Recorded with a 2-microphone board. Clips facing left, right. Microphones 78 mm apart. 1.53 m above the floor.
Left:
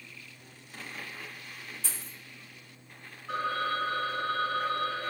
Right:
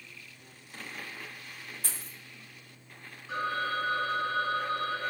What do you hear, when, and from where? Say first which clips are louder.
1.8 s a dropped coin: even; 50° right (ahead or behind), 1.2 m
3.3 s a phone ringing: left 1 dB; 60° left (ahead or behind), 0.9 m